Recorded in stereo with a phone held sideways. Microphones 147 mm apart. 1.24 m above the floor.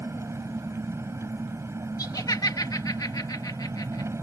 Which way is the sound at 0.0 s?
20° right (ahead or behind).